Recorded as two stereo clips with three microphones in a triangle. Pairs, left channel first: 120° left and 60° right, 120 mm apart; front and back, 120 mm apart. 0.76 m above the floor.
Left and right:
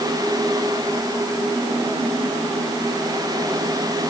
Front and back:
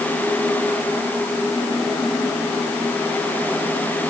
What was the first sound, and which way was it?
Only background noise.